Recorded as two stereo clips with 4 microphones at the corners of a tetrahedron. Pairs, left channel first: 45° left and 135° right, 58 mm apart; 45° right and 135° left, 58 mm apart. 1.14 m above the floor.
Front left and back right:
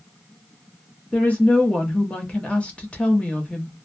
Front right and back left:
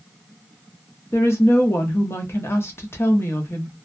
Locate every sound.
1.1 s a woman speaking: 15° right, 0.8 m